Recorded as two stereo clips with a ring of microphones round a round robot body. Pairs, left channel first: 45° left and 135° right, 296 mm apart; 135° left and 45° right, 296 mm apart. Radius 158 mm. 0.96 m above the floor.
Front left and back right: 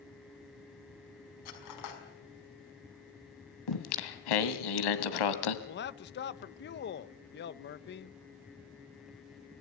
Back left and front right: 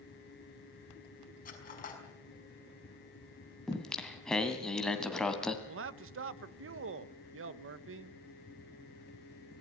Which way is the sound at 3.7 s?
45° left.